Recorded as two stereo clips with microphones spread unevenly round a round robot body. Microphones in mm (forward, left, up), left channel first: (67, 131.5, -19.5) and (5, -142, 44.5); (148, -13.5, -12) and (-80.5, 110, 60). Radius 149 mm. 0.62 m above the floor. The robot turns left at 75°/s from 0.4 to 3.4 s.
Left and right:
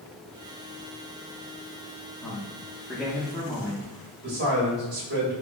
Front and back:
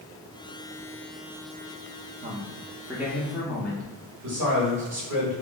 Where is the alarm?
No alarm in this recording.